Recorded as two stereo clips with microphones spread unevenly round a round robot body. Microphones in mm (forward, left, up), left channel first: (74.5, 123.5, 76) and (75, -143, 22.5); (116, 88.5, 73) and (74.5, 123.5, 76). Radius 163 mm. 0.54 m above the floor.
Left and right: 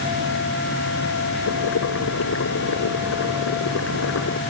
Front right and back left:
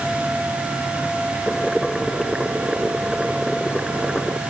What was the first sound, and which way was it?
Boiling, 55° left.